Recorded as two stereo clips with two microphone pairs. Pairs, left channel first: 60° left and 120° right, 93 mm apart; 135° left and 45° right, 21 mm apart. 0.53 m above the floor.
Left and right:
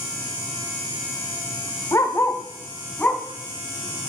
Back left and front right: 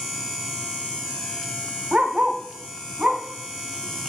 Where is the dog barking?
Straight ahead, 0.8 m; by 4.1 s 20° right, 1.9 m.